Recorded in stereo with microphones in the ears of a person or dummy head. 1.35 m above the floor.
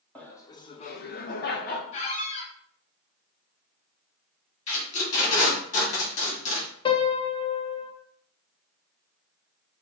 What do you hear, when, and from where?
0.1 s laughter: 5° left (ahead or behind), 0.6 m; by 1.8 s 50° left (ahead or behind), 0.9 m
1.9 s a squeak: 35° left (ahead or behind), 0.8 m
4.7 s tape being pulled: 40° left (ahead or behind), 2 m
6.8 s a piano: 30° left (ahead or behind), 0.7 m